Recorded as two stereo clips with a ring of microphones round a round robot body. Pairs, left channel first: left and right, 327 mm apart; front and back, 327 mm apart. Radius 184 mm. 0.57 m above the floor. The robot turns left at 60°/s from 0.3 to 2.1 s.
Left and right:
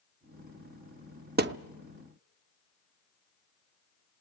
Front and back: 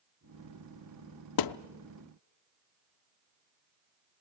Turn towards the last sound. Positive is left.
turn(degrees=-70)